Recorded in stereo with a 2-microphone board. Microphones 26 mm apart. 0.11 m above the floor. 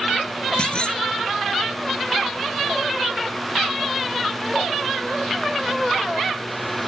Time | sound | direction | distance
0.6 | a clunk | 40° left (ahead or behind) | ?